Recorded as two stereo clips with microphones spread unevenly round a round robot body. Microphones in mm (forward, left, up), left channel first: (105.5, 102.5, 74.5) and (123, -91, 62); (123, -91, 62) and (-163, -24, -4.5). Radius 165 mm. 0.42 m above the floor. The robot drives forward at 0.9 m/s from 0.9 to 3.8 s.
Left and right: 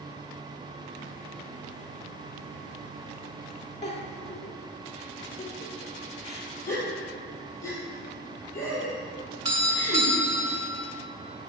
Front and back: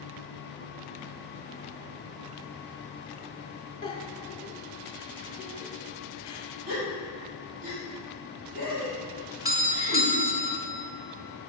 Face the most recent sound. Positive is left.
turn(degrees=-140)